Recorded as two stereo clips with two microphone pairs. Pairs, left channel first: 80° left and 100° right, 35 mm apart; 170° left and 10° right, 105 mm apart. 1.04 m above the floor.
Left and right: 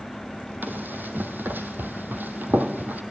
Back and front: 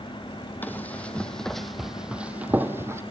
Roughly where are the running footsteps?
Behind right.